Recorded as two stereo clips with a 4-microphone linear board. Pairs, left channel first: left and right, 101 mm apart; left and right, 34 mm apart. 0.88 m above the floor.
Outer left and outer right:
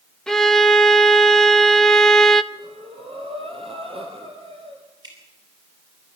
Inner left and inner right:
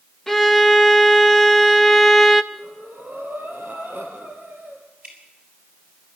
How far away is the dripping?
About 6.5 m.